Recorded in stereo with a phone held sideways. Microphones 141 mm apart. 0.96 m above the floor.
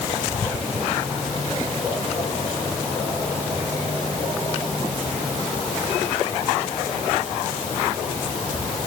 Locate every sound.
Only background noise.